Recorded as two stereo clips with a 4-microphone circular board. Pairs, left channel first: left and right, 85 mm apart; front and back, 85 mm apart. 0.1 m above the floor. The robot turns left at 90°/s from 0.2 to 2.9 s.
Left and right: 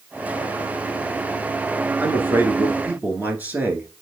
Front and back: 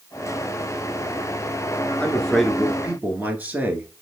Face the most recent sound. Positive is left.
turn(degrees=-135)